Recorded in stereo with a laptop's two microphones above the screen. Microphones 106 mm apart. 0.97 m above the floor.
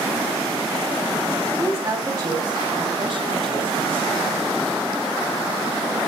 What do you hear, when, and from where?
1.5 s a woman speaking: 30° right (ahead or behind), 2.5 m; by 4.4 s 60° right (ahead or behind), 3 m